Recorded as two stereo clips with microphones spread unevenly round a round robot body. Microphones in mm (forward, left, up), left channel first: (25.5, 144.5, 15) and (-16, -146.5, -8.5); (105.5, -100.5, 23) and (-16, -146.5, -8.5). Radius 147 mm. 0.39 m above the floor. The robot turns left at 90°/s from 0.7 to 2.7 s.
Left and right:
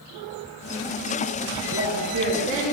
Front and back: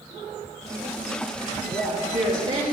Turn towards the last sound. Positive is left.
turn(degrees=165)